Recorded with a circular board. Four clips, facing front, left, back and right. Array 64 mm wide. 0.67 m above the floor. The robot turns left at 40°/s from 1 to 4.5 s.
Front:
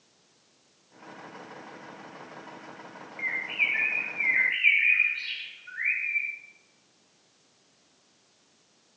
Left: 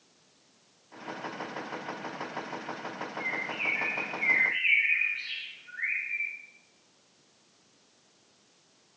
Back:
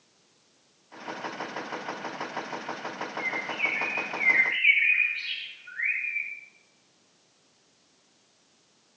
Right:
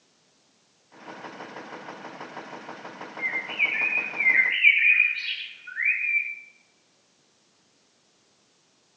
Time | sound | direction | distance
3.2 | a bird | 35° right | 1.0 m